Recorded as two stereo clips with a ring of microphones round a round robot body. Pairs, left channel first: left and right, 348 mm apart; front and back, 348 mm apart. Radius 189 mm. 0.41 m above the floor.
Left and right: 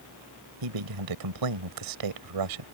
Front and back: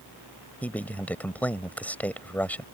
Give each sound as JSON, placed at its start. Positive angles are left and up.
{"t": 0.6, "sound": "a man speaking", "azimuth_deg": -85}